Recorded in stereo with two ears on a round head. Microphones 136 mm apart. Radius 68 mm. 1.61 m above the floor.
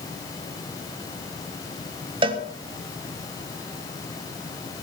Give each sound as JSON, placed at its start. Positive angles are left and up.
{"t": 2.2, "sound": "a cowbell", "side_deg": -30, "distance_m": 1.5}